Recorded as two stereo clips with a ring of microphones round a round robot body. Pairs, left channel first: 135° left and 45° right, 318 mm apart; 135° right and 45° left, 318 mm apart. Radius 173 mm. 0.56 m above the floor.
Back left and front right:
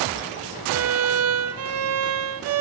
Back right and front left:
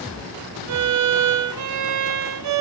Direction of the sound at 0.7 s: 5° left.